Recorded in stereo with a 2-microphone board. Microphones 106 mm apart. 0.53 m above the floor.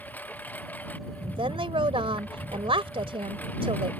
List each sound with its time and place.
0.0 s a lawn mower: 15° left (ahead or behind)
1.2 s a woman speaking: 60° right (ahead or behind)